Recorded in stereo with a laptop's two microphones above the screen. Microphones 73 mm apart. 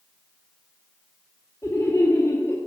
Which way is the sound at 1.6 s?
50° left (ahead or behind).